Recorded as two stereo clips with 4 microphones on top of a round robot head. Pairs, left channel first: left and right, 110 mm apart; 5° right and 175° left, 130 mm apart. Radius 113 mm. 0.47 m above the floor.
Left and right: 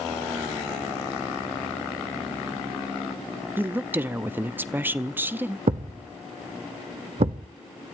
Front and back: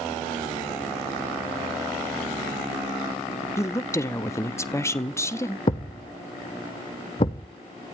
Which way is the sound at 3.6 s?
45° right.